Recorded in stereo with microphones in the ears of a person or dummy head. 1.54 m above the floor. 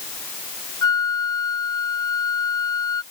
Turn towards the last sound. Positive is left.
turn(degrees=25)  # may be behind; listen again after turning